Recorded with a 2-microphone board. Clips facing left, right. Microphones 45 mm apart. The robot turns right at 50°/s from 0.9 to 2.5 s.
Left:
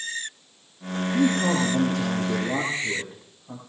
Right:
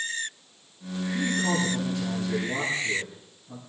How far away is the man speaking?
About 8.5 m.